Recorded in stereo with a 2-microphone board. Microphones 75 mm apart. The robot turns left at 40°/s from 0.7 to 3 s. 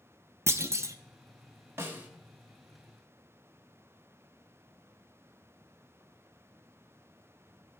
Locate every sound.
0.5 s a clunk: 40° right (ahead or behind), 0.5 m; by 1.0 s 45° right (ahead or behind), 0.5 m
1.8 s a snare drum: 35° right (ahead or behind), 1.2 m; by 2.1 s 25° right (ahead or behind), 1.2 m